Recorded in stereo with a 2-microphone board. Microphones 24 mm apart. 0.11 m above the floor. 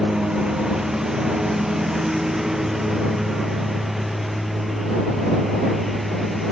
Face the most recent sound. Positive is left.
turn(degrees=0)  # may be behind; listen again after turning